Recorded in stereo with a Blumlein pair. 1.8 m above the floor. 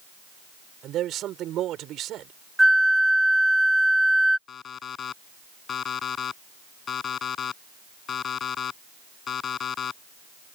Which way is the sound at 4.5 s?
25° left.